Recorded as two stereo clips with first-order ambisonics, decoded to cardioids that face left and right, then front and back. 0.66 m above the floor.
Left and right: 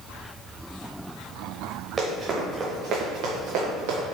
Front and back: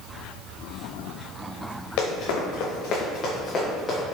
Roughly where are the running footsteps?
Ahead.